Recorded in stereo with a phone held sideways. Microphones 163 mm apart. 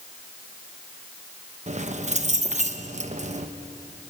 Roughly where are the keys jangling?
Right.